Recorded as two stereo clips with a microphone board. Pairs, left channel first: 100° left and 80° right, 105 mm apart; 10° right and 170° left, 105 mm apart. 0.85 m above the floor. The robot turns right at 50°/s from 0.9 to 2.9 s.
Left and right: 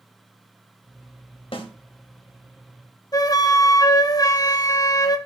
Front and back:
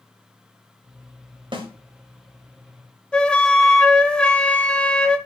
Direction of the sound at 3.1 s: 65° left.